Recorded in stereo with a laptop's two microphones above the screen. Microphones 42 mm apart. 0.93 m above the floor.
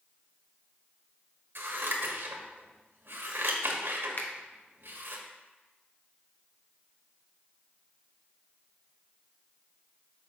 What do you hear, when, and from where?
1.6 s scissors: 65° right (ahead or behind), 1.2 m
4.2 s a finger snap: 50° left (ahead or behind), 0.7 m